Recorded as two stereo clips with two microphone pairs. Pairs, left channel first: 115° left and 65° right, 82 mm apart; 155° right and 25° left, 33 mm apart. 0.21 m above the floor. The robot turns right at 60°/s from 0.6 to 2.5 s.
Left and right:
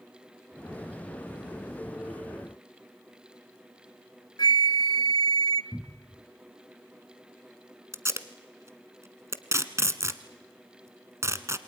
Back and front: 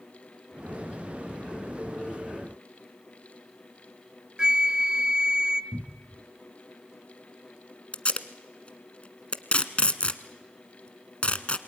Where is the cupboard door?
20° left, 0.9 m.